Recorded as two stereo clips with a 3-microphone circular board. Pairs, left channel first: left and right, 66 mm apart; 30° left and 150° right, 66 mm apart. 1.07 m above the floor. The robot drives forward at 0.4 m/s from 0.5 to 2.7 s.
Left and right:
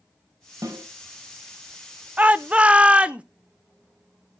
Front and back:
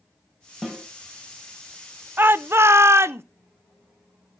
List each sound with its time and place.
0.6 s a snare drum: 60° right, 3 m; by 0.8 s 65° right, 3 m
2.2 s a shout: 135° right, 0.7 m; by 3.2 s 150° right, 0.9 m